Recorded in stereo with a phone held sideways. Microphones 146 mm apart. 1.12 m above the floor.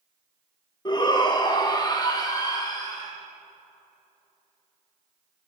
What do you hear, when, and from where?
0.8 s a shout: 30° left (ahead or behind), 1.1 m